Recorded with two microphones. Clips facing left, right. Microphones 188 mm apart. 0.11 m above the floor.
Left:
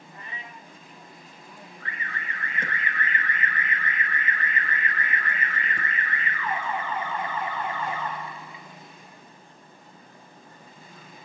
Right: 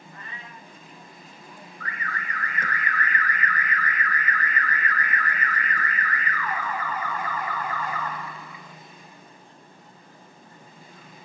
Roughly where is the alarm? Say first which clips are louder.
Right 3 dB; left.